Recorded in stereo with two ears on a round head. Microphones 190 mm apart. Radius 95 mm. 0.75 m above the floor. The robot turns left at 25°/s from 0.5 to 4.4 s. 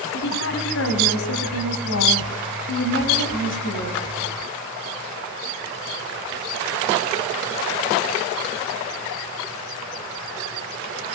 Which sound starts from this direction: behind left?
A woman speaking, at 0.1 s.